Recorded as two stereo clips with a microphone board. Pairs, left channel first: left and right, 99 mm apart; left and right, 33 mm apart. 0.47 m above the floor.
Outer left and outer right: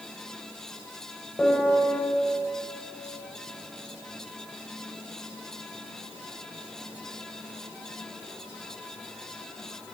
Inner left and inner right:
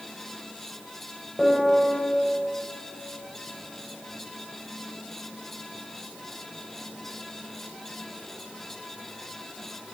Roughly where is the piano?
Centre.